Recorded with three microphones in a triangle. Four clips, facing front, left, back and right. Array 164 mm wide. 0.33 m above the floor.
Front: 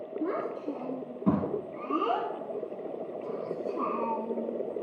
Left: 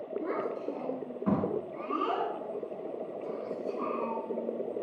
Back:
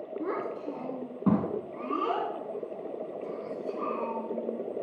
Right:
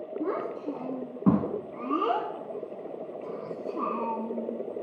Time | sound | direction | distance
0.2 | a child speaking | 120° right | 2 m